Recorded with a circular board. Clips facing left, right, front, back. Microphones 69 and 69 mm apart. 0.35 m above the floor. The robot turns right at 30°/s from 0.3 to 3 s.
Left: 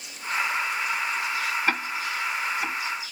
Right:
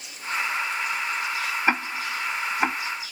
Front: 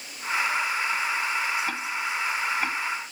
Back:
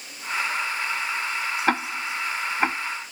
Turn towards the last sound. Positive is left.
turn(degrees=-120)